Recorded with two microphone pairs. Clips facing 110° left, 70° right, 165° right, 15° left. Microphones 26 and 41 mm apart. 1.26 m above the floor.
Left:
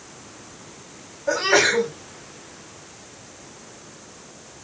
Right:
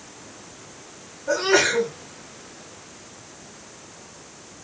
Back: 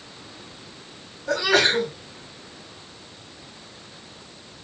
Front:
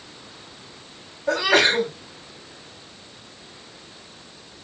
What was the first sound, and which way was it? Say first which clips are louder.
A sneeze: left 1 dB, front 2 dB; 60° left.